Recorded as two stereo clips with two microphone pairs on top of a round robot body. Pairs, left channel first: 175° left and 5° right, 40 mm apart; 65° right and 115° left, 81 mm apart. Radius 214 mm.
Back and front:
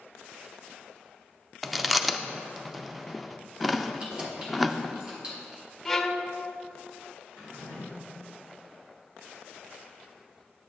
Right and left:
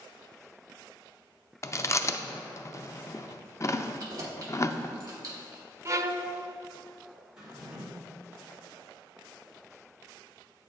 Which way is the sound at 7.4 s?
35° left.